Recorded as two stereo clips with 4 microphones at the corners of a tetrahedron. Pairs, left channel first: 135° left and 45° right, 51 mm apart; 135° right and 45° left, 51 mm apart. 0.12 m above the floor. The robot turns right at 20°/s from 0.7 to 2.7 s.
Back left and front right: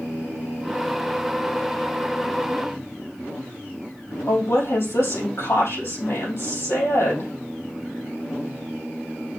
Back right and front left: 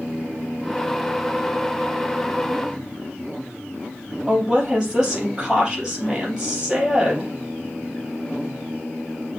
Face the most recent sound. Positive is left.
turn(degrees=120)